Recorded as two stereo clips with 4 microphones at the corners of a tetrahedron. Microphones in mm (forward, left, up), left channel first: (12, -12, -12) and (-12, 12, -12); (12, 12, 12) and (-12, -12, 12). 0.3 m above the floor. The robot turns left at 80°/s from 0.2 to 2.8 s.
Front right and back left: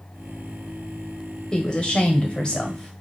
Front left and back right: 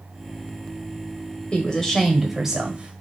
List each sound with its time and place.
1.5 s a woman speaking: 5° left, 1.2 m; by 3.0 s 100° right, 1.2 m